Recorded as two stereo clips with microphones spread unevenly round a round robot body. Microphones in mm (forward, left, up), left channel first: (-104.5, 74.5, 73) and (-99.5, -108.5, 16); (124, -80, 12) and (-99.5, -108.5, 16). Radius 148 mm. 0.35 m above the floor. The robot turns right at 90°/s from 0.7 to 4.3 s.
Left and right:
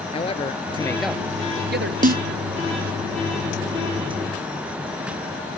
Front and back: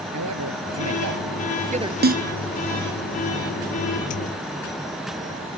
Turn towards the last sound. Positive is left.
turn(degrees=75)